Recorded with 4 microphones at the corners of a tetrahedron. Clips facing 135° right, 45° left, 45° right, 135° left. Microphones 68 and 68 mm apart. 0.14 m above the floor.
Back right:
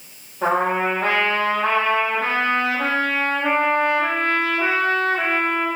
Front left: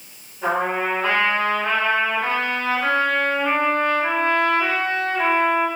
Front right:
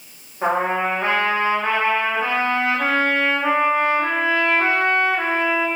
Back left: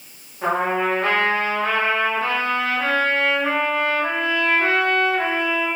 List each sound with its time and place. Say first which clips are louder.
0.4 s a trumpet: back right 2 dB, front right 1 dB; 110° right, 5.5 m